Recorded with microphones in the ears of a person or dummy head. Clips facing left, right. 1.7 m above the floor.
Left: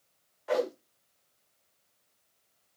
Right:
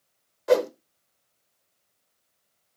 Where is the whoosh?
50° right (ahead or behind), 1.5 m.